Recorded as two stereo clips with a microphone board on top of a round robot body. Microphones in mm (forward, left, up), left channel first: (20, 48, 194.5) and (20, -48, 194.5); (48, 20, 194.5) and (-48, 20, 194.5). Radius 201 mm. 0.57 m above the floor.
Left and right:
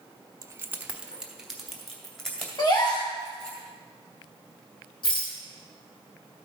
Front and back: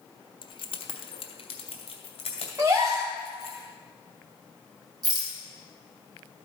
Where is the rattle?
135° left, 1.3 m.